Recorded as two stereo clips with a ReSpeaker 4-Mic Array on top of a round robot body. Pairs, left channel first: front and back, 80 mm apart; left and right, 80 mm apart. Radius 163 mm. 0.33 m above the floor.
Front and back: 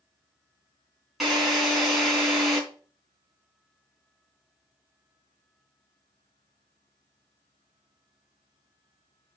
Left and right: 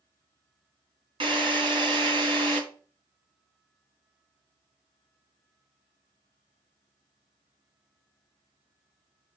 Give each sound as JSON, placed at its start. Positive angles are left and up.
{"t": 1.2, "sound": "a drill", "azimuth_deg": -95, "distance_m": 3.5}